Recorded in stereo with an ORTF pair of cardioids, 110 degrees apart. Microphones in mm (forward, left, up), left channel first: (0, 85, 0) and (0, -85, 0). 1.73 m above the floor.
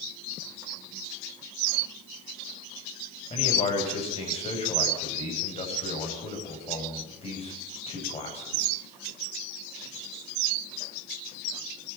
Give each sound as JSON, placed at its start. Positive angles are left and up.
{"t": 3.3, "sound": "a man speaking", "azimuth_deg": 40, "distance_m": 9.5}